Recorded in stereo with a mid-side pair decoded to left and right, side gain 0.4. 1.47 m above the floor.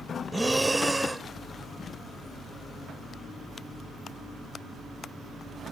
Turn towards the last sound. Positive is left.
turn(degrees=-10)